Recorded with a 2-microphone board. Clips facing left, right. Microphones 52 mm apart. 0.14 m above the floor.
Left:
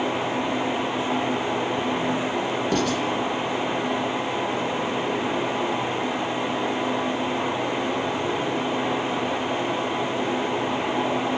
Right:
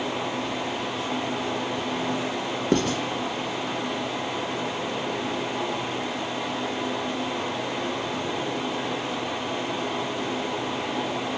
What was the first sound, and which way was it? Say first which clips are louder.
Writing: right 2 dB; 40° right (ahead or behind).